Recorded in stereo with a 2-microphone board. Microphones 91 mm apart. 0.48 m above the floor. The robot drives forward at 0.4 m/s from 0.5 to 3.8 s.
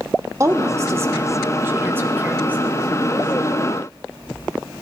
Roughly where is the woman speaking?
Right.